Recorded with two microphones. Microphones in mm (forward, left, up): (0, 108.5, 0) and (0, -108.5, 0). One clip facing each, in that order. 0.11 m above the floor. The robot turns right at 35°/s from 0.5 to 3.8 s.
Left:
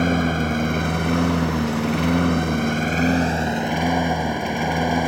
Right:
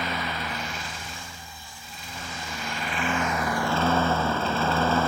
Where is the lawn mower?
50° left; by 5.1 s 165° left.